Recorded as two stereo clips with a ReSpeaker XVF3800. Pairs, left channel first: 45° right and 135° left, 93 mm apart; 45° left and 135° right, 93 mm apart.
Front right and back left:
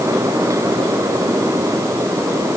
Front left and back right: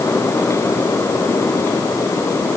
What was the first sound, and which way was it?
Only background noise.